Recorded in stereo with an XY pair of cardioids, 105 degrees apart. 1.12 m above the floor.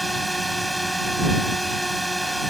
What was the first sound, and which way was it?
A drone, straight ahead.